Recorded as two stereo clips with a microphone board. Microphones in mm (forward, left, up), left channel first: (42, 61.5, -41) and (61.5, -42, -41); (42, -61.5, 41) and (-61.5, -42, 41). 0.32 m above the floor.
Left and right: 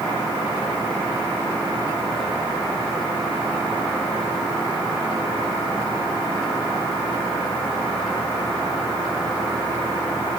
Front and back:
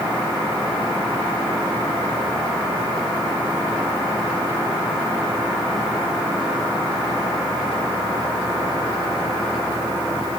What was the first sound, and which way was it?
Only background noise.